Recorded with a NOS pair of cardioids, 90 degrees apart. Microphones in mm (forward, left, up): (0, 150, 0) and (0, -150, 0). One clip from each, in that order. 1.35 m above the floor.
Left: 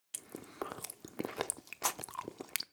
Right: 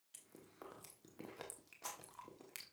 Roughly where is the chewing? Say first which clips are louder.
Left 15 dB; left.